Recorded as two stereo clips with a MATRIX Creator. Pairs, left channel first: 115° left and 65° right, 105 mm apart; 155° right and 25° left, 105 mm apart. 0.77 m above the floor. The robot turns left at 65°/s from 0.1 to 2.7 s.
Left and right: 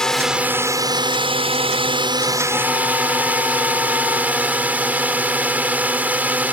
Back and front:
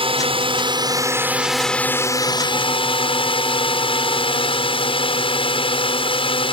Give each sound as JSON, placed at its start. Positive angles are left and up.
{"t": 0.0, "sound": "a drone", "azimuth_deg": 30}